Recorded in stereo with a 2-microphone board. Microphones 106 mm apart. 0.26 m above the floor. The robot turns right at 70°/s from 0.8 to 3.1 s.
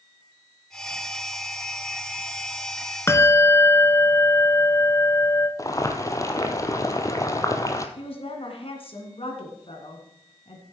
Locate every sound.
3.1 s a bell: 25° left (ahead or behind), 1.1 m
5.6 s boiling: 30° left (ahead or behind), 1.2 m
8.0 s a woman speaking: 60° left (ahead or behind), 3 m